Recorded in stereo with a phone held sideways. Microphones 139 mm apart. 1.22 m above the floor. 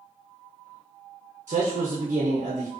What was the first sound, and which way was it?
A man speaking, 60° right (ahead or behind).